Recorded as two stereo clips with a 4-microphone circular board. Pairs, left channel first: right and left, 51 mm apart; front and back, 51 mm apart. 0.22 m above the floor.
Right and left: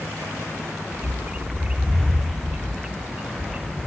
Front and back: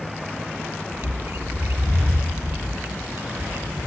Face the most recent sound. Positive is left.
turn(degrees=150)